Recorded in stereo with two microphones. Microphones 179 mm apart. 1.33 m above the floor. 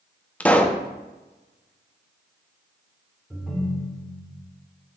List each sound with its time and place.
0.4 s a pop: 10° left (ahead or behind), 0.5 m
3.3 s a ringtone: centre (ahead or behind), 2.0 m